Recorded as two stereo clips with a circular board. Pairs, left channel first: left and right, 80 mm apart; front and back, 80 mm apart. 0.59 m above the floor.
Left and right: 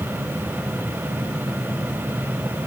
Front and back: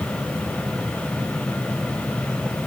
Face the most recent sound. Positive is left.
No sound to turn to.